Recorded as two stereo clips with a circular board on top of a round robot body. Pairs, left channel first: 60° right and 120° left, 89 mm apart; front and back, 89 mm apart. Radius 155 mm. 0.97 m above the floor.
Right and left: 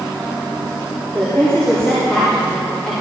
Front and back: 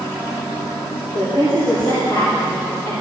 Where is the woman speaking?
10° left, 4 m; by 2.9 s 25° left, 4.5 m.